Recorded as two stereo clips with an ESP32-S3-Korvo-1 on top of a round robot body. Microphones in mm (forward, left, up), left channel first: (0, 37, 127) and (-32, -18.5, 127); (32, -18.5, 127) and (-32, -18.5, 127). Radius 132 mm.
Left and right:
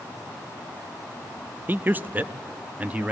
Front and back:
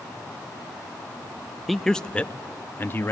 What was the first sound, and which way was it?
A man speaking, 90° right.